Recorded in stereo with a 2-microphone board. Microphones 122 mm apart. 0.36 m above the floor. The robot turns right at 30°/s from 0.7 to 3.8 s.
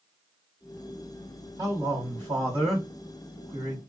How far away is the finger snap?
I don't hear a finger snap.